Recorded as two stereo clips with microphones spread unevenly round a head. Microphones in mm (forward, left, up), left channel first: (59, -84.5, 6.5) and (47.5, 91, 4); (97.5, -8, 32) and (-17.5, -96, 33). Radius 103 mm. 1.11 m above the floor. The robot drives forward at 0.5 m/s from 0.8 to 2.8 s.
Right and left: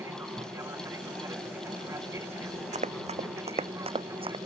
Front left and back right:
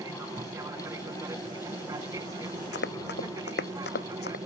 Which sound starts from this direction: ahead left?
Running footsteps, at 2.7 s.